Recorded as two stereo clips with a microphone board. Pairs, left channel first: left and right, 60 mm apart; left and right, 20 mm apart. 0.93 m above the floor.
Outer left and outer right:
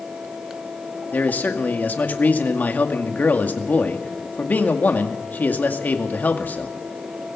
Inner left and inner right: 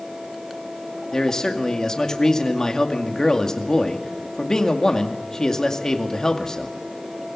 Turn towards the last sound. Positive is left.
turn(degrees=30)  # may be behind; listen again after turning